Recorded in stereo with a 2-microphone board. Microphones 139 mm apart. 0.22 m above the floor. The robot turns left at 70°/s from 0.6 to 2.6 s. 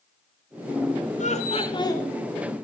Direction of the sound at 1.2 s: 80° left.